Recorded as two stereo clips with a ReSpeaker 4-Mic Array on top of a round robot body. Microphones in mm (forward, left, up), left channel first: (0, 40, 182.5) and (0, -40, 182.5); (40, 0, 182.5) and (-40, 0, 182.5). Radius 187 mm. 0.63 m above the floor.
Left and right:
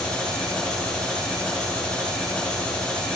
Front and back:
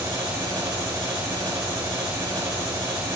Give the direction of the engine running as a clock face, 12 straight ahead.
7 o'clock.